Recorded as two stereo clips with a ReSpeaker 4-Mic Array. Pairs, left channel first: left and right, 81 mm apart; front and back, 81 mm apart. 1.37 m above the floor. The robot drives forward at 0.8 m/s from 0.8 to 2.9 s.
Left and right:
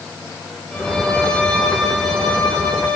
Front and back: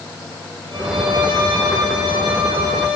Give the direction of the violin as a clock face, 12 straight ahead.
6 o'clock.